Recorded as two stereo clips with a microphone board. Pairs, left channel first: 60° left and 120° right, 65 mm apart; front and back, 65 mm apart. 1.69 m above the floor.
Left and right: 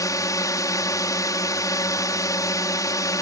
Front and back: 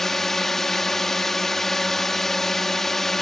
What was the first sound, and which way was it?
A drone, 85° left.